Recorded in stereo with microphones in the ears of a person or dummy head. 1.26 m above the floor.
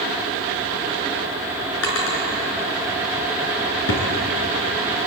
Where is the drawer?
85° left, 6 m.